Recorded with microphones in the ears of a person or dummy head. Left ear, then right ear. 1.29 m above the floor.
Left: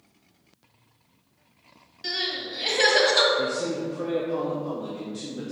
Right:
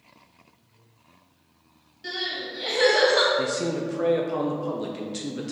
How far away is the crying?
About 1.7 m.